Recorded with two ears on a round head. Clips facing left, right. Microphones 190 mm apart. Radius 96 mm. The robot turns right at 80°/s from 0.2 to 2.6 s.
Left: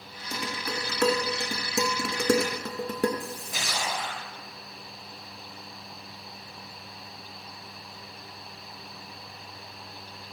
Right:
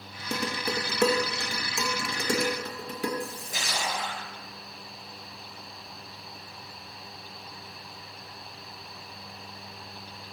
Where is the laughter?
No laughter in this recording.